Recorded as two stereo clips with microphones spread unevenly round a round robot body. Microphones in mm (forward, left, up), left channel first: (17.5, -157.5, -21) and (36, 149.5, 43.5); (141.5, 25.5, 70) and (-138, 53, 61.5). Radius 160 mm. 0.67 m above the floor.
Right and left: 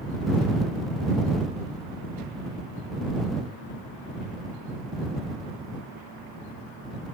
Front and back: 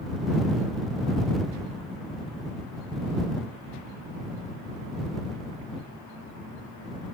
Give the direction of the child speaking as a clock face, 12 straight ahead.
I don't hear a child speaking.